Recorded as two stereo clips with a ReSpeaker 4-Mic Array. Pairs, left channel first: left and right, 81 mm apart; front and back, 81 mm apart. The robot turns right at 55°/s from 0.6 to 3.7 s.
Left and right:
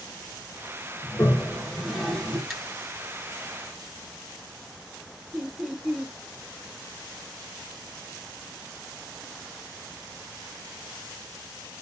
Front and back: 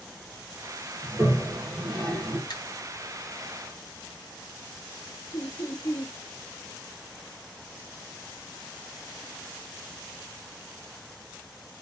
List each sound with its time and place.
1.0 s a toilet flushing: 135° left, 1.6 m; by 2.4 s 150° right, 1.6 m
2.5 s a finger snap: straight ahead, 1.0 m; by 2.6 s 10° left, 1.0 m
5.3 s laughter: 10° right, 1.0 m